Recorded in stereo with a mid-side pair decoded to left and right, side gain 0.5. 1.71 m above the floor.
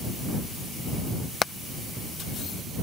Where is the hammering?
40° left.